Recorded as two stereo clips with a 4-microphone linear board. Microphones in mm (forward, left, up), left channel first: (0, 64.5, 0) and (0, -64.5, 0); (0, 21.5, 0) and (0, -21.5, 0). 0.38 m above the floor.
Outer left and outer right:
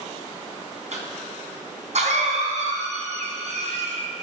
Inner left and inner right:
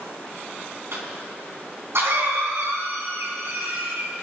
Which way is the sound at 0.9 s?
65° right (ahead or behind).